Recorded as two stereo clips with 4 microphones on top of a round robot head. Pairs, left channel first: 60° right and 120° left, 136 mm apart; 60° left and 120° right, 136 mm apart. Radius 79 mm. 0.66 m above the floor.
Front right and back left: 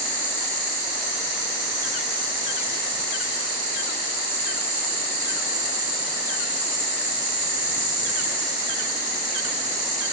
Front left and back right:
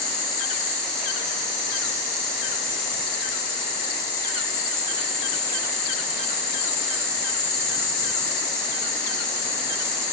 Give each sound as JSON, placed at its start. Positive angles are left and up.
{"t": 0.0, "sound": "an insect", "azimuth_deg": 140, "distance_m": 1.9}